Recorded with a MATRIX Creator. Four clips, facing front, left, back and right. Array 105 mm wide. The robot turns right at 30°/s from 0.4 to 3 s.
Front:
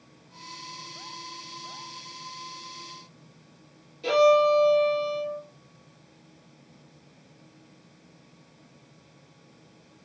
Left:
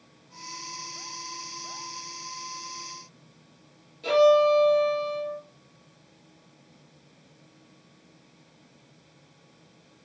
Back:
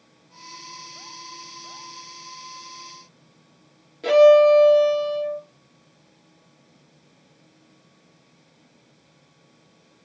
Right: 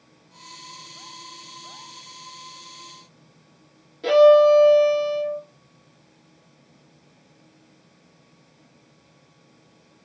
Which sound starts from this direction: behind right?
A violin, at 4.0 s.